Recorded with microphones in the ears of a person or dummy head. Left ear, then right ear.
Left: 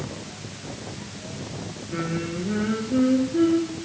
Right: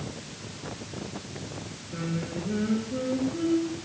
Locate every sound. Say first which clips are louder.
1.9 s singing: left 5 dB; 50° left (ahead or behind), 3 m